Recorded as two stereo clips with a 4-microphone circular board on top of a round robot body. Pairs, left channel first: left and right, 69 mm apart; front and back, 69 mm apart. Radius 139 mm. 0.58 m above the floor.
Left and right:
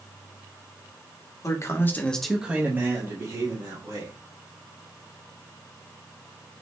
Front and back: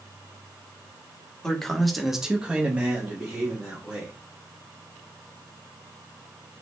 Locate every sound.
1.4 s a man speaking: 80° left, 1.2 m; by 4.1 s 110° right, 2 m